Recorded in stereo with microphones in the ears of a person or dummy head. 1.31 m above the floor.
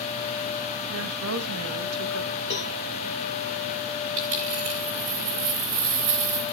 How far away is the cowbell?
About 2 m.